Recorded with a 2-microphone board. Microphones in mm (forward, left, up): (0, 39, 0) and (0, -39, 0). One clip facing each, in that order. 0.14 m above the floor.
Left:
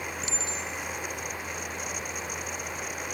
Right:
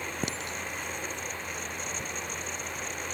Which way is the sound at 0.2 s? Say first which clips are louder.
Even; 55° right (ahead or behind).